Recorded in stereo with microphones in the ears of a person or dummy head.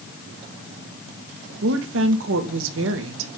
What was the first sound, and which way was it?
A woman speaking, 75° right (ahead or behind).